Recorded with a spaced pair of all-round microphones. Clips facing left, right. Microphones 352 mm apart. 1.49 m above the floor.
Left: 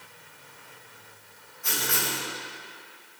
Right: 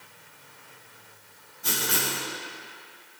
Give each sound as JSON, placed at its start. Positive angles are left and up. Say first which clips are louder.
{"t": 1.6, "sound": "writing", "louder": "right 2 dB", "side_deg": -50, "distance_m": 1.1}